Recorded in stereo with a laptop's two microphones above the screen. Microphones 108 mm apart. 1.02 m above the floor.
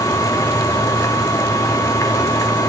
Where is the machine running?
30° left (ahead or behind), 0.8 m.